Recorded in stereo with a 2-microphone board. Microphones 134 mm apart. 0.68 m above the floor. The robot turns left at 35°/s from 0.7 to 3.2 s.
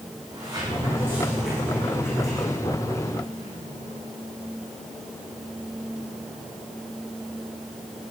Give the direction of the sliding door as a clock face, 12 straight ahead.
5 o'clock.